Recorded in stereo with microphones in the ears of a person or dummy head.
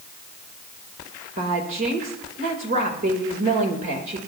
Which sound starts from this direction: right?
A woman speaking, at 1.4 s.